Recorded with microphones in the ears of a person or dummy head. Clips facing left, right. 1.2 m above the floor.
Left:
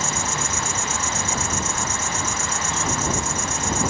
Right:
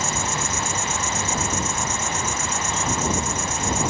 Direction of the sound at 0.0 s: 55° left (ahead or behind).